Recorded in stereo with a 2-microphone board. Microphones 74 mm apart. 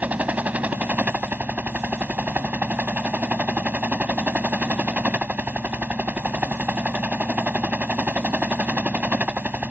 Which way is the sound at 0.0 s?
20° right (ahead or behind).